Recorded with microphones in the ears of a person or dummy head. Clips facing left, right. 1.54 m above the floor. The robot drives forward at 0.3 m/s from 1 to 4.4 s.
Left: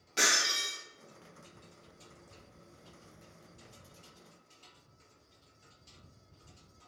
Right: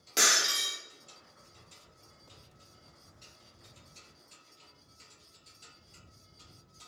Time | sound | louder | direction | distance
0.2 | breaking glass | right 1 dB | 70° right (ahead or behind) | 1.7 m